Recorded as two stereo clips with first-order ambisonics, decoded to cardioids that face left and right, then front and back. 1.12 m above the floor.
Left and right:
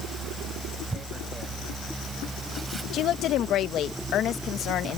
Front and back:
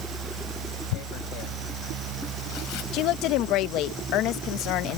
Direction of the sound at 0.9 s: 15° right.